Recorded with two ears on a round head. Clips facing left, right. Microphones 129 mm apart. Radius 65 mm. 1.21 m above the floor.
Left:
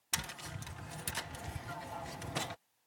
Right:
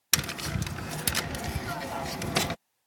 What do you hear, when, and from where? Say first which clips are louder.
0.1 s tapping: right 11 dB; 75° right (ahead or behind)